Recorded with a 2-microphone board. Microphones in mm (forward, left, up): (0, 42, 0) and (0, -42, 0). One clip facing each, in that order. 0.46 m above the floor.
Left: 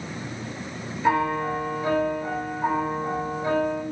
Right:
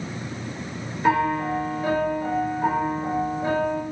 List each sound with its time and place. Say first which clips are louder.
1.0 s a piano: right 1 dB; 25° right (ahead or behind), 1.2 m